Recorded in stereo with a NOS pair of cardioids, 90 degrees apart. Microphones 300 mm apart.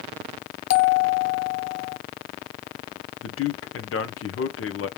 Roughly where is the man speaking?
Ahead left.